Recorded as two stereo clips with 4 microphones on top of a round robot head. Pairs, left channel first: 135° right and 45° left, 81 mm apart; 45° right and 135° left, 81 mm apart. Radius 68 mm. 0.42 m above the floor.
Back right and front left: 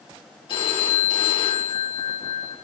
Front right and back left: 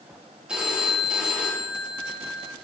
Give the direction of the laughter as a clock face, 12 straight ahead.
I don't hear laughter.